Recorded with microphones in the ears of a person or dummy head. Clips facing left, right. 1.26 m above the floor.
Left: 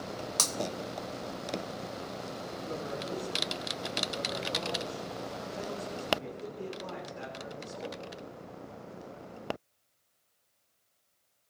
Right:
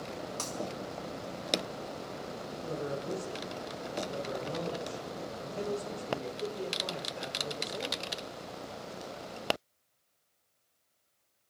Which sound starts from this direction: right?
A man speaking, at 2.6 s.